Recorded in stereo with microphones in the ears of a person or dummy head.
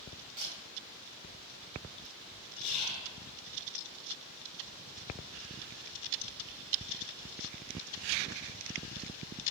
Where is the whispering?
5° right (ahead or behind), 1.5 m.